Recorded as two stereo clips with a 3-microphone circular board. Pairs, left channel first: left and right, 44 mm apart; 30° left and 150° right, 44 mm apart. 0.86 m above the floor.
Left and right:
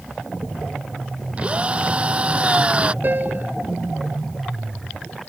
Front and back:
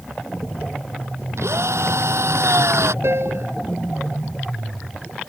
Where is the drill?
150° right.